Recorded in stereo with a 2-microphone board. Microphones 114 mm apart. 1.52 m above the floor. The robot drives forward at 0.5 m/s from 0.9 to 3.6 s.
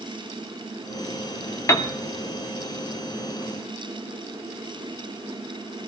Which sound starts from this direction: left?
A piano, at 1.7 s.